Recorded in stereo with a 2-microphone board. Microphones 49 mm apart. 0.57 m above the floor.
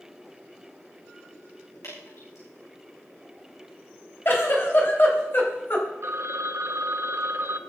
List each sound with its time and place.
1.8 s dripping: 85° left, 7.5 m
4.2 s a giggle: 45° left (ahead or behind), 3.5 m
6.0 s a phone ringing: 60° right (ahead or behind), 1.1 m